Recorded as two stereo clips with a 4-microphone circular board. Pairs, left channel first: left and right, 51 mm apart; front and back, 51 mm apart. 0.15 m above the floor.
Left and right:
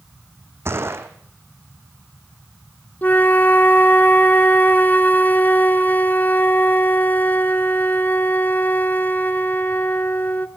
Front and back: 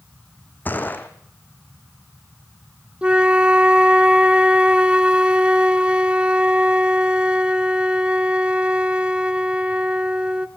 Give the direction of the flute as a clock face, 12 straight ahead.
8 o'clock.